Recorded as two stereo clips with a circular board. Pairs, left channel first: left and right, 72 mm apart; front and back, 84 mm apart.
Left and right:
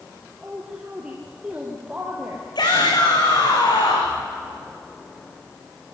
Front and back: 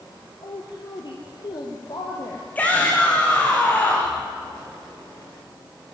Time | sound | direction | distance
0.4 | a woman speaking | 15° right | 3.5 m
2.5 | a shout | 70° left | 7 m